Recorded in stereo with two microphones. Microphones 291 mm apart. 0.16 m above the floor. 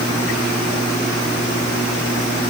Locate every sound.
Only background noise.